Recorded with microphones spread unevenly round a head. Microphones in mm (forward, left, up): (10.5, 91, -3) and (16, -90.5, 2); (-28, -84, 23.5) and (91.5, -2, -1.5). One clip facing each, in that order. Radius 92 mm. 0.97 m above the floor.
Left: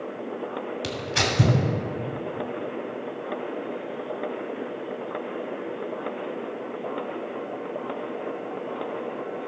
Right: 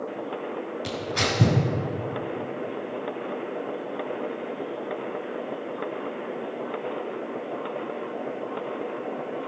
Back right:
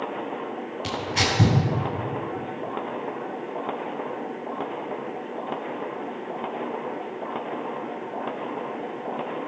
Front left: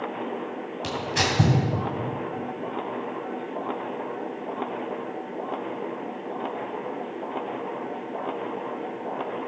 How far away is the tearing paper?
About 2.5 m.